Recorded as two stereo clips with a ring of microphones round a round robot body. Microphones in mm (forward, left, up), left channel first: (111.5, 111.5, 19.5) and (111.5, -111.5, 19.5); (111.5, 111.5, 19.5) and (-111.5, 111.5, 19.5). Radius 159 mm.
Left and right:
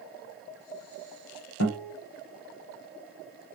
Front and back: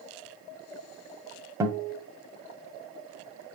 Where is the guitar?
100° left, 0.7 m.